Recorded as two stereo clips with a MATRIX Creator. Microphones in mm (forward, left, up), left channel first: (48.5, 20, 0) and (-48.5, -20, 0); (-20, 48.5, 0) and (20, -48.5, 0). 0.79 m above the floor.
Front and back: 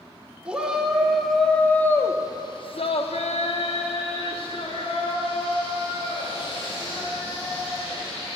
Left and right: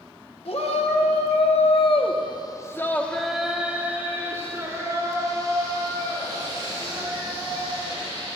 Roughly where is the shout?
Behind left.